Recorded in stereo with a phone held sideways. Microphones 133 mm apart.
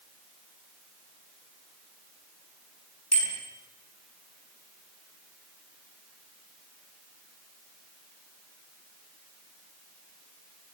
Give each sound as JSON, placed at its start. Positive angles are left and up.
{"t": 3.1, "sound": "a bicycle bell", "side_deg": -55, "distance_m": 8.5}